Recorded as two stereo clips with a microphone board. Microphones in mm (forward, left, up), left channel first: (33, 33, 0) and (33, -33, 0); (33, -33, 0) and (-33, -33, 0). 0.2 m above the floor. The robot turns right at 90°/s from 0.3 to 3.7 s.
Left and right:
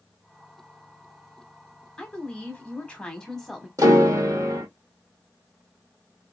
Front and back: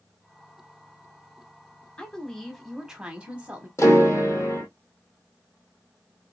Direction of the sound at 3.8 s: 50° right.